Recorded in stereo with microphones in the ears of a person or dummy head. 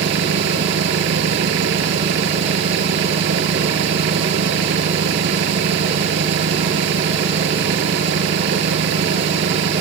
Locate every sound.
0.0 s an engine running: 70° right (ahead or behind)